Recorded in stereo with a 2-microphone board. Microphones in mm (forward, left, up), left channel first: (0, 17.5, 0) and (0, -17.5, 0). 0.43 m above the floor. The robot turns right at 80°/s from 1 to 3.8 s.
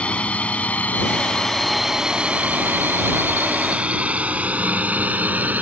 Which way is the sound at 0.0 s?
35° left (ahead or behind).